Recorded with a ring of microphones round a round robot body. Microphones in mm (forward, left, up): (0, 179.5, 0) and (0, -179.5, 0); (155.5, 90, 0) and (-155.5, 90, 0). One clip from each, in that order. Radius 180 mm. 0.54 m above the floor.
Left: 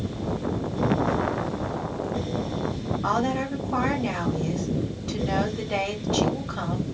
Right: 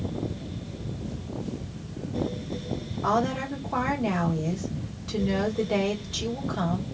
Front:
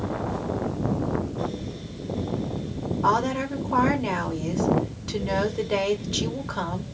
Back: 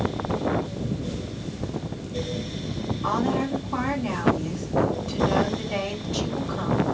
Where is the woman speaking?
Straight ahead, 1.3 m.